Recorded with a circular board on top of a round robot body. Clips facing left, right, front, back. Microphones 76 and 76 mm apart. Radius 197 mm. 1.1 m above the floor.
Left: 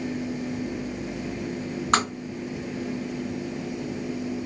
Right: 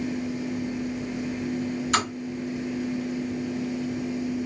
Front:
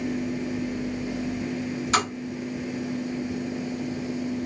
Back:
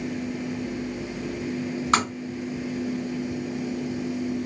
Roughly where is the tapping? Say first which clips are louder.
Left 4 dB, back 2 dB; behind left.